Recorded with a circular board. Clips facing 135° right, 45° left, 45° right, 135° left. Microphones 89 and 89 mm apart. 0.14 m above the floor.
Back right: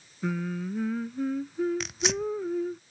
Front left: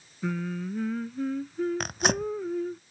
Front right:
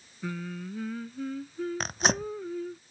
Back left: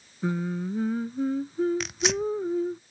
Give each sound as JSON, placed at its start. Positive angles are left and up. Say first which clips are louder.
{"t": 0.2, "sound": "singing", "louder": "even, back left 7 dB", "azimuth_deg": 145}
{"t": 1.8, "sound": "tearing paper", "louder": "front left 2 dB, back left 2 dB", "azimuth_deg": 5}